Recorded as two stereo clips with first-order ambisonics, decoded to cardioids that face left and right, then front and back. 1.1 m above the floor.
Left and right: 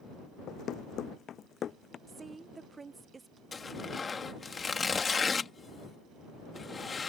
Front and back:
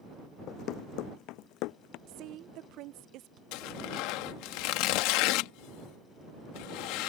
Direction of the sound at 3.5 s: 15° left.